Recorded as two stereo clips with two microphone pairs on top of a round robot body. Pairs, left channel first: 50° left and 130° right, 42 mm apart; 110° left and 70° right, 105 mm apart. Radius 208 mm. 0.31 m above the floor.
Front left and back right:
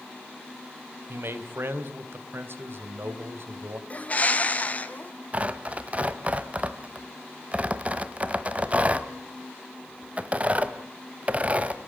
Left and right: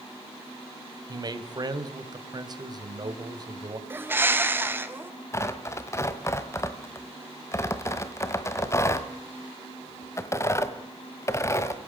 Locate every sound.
1.1 s a man speaking: 115° right, 3 m
3.9 s a bird: 5° right, 2.5 m
5.3 s tearing paper: 175° left, 1.6 m